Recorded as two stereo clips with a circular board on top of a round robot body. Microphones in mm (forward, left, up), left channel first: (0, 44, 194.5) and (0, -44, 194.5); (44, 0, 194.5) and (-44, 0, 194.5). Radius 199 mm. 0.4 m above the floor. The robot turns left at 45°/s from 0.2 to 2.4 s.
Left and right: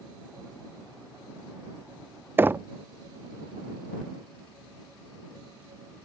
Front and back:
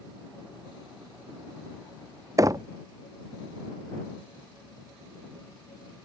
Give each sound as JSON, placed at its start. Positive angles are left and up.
{"t": 2.4, "sound": "knocking", "azimuth_deg": -145}